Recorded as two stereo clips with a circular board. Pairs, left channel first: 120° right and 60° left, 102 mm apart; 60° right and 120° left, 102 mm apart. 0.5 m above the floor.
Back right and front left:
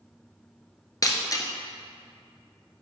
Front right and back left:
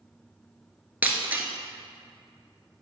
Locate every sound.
1.0 s breaking glass: 170° right, 0.8 m